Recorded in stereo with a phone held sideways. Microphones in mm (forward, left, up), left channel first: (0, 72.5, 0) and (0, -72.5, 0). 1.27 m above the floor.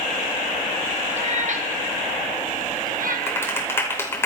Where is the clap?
15° left (ahead or behind), 4.5 m.